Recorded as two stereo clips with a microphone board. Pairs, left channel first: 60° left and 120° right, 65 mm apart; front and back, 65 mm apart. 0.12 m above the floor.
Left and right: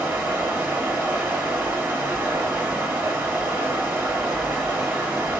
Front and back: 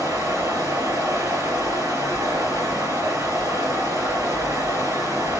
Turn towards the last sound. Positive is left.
turn(degrees=-165)